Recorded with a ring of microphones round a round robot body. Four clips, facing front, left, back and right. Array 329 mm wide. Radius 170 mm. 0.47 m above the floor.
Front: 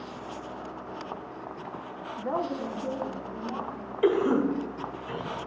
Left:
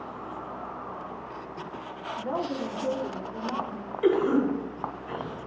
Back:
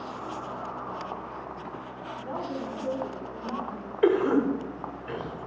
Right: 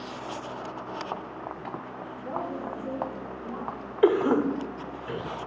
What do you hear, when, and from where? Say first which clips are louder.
2.2 s a woman speaking: left 3 dB, front 4 dB; 15° left, 1.1 m; by 3.9 s 125° left, 2.5 m
4.0 s a cough: right 1 dB, back 1 dB; 110° right, 1.6 m